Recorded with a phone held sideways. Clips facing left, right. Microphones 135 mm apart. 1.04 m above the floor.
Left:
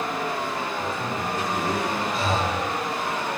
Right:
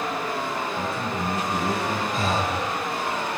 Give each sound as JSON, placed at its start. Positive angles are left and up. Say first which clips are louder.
{"t": 0.8, "sound": "a man speaking", "louder": "right 1 dB", "side_deg": -70, "distance_m": 8.5}
{"t": 2.1, "sound": "breathing", "louder": "even", "side_deg": -45, "distance_m": 5.5}